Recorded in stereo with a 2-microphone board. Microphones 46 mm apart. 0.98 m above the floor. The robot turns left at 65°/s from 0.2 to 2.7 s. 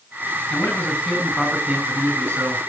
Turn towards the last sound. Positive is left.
turn(degrees=-90)